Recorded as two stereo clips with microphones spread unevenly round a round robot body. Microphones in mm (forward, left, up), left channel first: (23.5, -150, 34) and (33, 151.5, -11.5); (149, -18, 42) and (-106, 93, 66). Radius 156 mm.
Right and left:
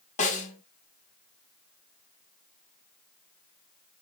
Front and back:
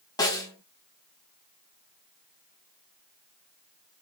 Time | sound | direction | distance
0.2 | a snare drum | 50° right | 1.0 m